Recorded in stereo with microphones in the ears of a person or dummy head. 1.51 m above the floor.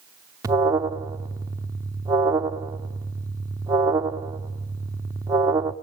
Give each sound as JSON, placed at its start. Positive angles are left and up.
{"t": 0.4, "sound": "an alarm", "side_deg": -25, "distance_m": 0.7}